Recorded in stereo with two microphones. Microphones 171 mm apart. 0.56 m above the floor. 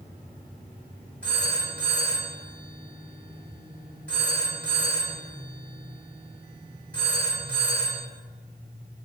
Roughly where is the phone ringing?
Centre.